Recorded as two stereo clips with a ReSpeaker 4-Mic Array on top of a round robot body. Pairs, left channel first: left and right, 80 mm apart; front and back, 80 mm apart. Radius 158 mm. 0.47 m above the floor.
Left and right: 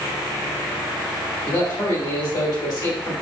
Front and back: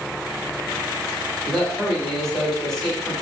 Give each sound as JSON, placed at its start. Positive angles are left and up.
{"t": 1.4, "sound": "a man speaking", "azimuth_deg": 85, "distance_m": 1.9}